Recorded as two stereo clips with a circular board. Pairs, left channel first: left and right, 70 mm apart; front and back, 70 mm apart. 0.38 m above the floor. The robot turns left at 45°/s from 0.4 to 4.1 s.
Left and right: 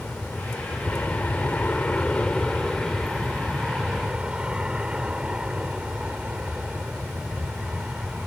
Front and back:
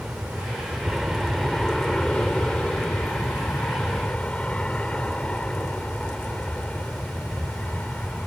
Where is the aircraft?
130° left; by 8.3 s 40° right.